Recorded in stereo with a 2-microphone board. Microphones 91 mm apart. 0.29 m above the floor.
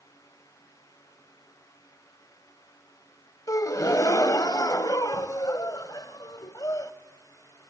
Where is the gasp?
40° left (ahead or behind), 0.7 m.